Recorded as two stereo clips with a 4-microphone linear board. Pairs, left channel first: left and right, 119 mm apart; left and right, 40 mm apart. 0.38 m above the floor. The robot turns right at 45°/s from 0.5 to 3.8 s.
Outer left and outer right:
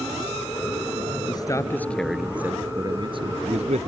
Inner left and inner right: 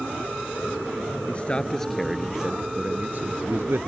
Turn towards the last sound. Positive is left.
turn(degrees=-105)